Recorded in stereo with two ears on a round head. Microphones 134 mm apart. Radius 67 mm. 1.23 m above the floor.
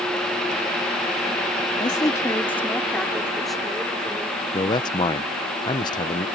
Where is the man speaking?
30° left (ahead or behind).